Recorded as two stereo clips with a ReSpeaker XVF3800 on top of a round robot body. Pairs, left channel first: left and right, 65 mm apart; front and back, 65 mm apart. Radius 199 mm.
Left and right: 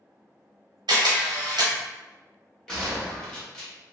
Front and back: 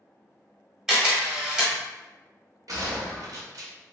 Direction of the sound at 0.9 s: 95° right.